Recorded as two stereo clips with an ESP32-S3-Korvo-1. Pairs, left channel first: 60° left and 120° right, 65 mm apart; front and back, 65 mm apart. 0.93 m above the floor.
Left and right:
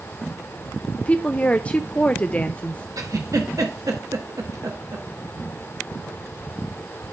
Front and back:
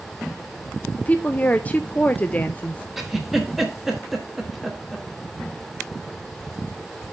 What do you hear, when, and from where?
1.0 s a woman speaking: 25° left, 0.5 m
3.0 s a giggle: 95° right, 1.4 m